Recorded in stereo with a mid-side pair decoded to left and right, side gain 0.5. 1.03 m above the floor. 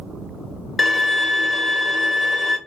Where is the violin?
15° left, 0.9 m.